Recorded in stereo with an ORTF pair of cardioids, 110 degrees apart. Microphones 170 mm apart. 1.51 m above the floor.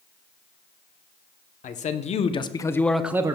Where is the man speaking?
45° left, 0.9 m; by 3.4 s 25° right, 0.5 m.